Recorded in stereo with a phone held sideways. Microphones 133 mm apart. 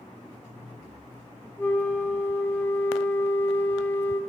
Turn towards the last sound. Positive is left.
turn(degrees=15)  # may be behind; listen again after turning